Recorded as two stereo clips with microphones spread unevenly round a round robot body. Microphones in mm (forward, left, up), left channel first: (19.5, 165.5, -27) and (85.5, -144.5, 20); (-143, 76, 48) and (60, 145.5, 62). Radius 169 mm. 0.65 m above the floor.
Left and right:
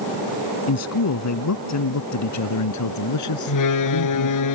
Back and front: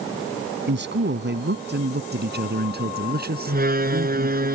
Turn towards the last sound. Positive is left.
turn(degrees=70)